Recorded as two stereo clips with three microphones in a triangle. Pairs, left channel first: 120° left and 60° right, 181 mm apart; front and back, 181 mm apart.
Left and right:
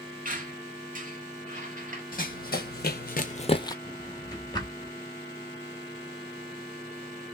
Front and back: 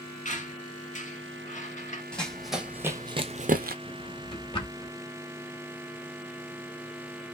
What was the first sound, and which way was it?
A squeak, 35° right.